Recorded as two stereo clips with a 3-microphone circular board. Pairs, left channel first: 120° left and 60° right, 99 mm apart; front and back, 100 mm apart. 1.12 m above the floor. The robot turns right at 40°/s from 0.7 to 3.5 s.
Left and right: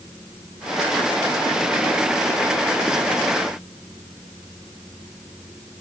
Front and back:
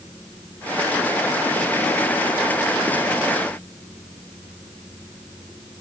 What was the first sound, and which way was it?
Only background noise.